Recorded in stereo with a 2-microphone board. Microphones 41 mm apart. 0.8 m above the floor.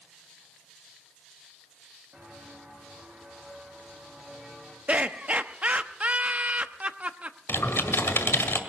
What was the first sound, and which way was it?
Footsteps, 25° right (ahead or behind).